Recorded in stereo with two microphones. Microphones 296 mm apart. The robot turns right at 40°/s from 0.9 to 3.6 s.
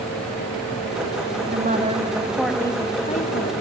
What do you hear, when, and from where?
1.5 s a woman speaking: 40° right, 2.5 m; by 3.5 s 40° left, 2.5 m